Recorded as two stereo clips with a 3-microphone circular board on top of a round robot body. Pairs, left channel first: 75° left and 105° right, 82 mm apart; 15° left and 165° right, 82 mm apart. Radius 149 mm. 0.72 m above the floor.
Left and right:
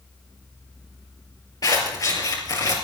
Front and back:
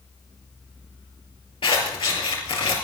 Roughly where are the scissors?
Ahead left.